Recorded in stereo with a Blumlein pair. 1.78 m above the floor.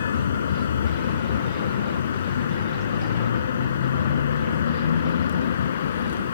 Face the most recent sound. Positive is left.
turn(degrees=65)